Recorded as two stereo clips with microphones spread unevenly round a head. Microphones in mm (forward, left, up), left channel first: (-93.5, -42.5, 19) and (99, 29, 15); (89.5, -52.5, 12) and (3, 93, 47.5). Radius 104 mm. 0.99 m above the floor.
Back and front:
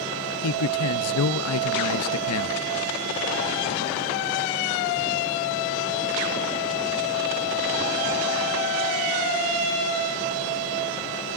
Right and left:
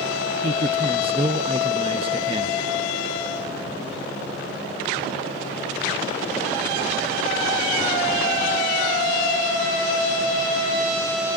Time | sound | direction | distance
0.4 | a man speaking | 175° right | 0.7 m